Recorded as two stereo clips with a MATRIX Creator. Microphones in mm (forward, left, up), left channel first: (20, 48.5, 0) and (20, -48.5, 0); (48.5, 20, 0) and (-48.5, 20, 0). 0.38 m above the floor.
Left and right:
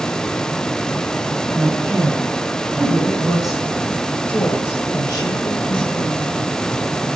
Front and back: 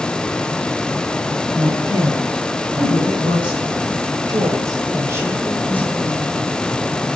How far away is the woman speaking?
About 3.5 m.